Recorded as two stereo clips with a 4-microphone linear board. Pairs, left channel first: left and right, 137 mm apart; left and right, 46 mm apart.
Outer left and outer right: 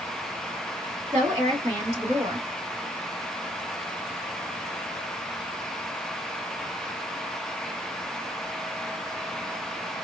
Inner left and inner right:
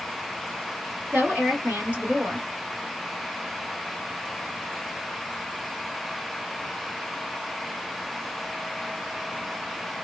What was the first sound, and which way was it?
A woman speaking, 40° right (ahead or behind).